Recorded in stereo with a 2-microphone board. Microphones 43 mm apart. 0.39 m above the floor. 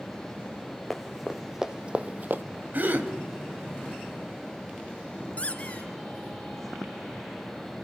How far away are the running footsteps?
About 1.5 m.